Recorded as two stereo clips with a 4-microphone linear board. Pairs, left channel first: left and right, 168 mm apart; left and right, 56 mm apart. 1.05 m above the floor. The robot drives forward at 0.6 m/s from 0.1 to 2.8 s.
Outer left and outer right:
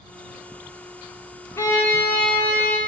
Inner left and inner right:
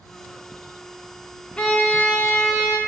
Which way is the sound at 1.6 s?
15° left (ahead or behind).